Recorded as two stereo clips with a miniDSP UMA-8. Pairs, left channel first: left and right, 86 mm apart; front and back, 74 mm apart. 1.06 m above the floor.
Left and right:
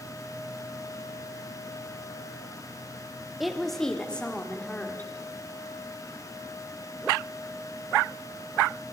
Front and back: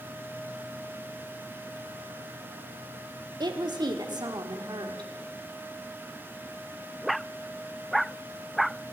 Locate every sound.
3.4 s a woman speaking: 175° right, 2.5 m; by 5.1 s 160° left, 3.5 m